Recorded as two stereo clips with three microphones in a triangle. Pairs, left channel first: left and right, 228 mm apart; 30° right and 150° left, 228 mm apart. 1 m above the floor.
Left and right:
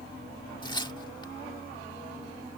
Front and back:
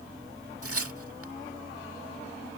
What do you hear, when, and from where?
0.6 s tearing paper: 160° left